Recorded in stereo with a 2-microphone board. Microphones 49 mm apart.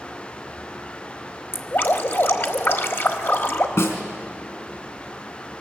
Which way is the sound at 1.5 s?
50° left (ahead or behind).